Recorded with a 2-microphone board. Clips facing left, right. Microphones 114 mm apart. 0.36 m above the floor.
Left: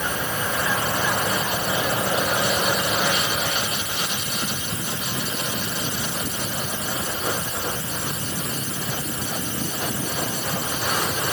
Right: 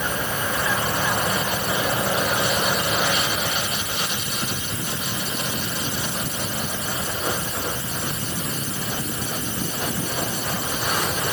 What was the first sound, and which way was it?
Only background noise.